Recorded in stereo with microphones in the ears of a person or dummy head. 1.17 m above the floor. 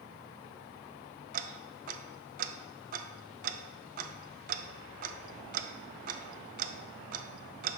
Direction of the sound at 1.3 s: 45° right (ahead or behind).